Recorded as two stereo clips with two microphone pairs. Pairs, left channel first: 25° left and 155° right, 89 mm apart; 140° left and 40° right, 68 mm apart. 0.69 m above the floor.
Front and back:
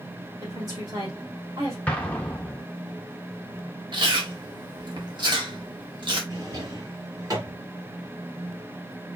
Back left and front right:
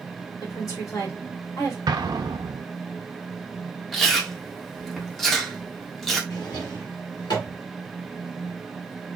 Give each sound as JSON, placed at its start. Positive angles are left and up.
{"t": 0.4, "sound": "a woman speaking", "azimuth_deg": 165, "distance_m": 1.9}
{"t": 1.9, "sound": "an explosion", "azimuth_deg": -50, "distance_m": 0.9}
{"t": 3.9, "sound": "chewing", "azimuth_deg": -130, "distance_m": 1.3}
{"t": 6.3, "sound": "a drawer", "azimuth_deg": 155, "distance_m": 2.0}